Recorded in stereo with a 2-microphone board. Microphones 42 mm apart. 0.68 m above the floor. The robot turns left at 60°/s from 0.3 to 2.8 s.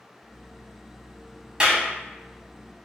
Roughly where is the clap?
Right.